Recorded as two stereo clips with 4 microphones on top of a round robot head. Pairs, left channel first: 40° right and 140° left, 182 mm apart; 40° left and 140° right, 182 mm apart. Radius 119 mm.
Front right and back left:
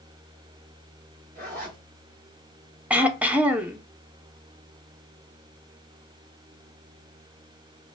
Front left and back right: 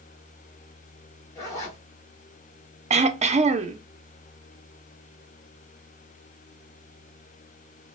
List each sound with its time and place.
1.4 s a zipper: 110° left, 1.9 m
2.9 s throat clearing: 140° right, 0.6 m